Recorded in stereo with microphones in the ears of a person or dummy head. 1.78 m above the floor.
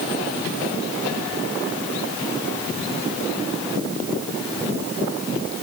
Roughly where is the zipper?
I don't hear a zipper.